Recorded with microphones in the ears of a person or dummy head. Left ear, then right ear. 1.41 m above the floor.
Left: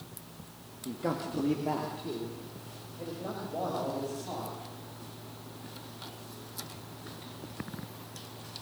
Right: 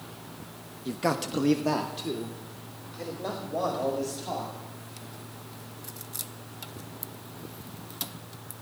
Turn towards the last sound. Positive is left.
turn(degrees=-80)